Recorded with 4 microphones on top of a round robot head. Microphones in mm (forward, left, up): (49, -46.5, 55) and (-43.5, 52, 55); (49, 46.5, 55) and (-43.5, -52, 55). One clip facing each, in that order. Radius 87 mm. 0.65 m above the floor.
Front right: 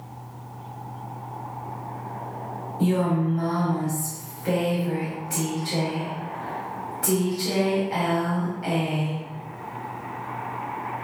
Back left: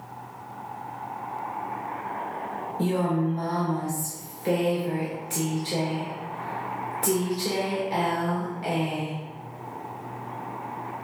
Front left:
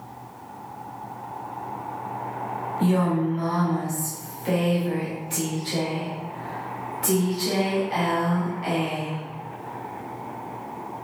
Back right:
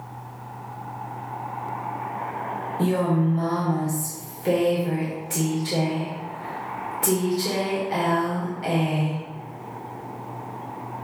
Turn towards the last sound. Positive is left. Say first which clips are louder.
# front right 2 dB, even
turn(degrees=-165)